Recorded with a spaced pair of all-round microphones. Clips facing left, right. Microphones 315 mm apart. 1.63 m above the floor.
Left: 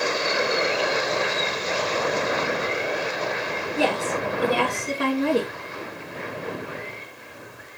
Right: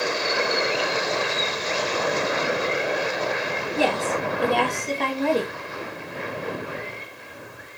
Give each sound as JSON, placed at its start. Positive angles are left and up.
{"t": 3.8, "sound": "a woman speaking", "side_deg": 0, "distance_m": 3.0}